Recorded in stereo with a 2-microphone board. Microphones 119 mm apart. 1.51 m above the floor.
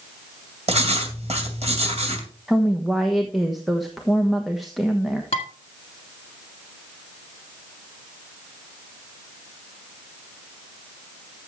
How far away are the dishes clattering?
About 1.8 m.